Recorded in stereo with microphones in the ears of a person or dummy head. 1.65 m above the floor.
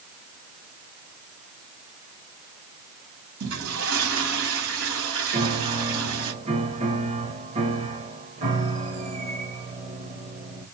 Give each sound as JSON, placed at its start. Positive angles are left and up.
{"t": 3.4, "sound": "a toilet flushing", "side_deg": -75, "distance_m": 3.0}
{"t": 5.3, "sound": "a piano", "side_deg": -30, "distance_m": 1.2}